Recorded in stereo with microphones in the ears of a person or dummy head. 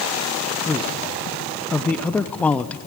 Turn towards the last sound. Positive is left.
turn(degrees=10)  # may be behind; listen again after turning